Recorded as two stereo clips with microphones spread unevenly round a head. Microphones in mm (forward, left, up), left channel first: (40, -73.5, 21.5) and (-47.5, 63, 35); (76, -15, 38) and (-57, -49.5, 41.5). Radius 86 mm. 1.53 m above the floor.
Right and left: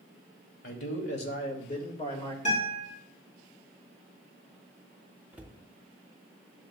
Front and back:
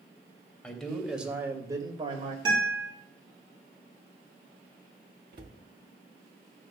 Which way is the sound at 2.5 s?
110° right.